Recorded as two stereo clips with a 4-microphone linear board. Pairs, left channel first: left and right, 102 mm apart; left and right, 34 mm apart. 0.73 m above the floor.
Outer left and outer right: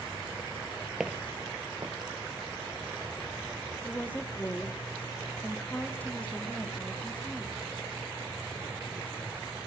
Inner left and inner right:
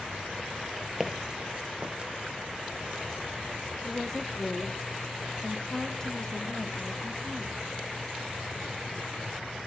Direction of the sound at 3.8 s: 15° left (ahead or behind).